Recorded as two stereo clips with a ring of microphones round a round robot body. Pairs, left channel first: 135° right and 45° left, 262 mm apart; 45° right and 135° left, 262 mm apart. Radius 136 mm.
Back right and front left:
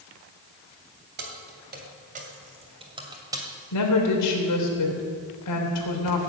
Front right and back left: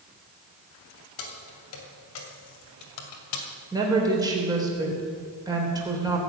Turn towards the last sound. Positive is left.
turn(degrees=-150)